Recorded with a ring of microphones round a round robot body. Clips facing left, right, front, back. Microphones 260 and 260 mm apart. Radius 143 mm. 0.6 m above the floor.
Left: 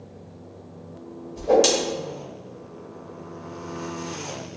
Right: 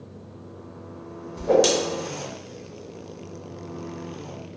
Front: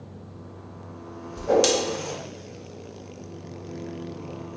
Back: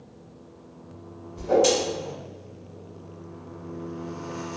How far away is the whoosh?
About 0.7 m.